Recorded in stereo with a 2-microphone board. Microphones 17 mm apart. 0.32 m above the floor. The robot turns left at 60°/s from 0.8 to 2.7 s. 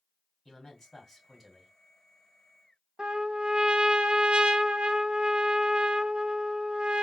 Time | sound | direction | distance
0.5 | a man speaking | 30° left | 2.5 m
3.0 | a trumpet | 70° right (ahead or behind) | 0.6 m